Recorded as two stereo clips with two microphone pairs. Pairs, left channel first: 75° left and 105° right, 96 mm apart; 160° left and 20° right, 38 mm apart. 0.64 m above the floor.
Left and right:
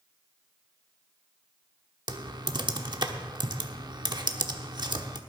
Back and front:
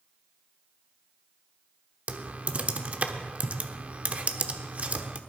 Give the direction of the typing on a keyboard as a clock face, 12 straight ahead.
2 o'clock.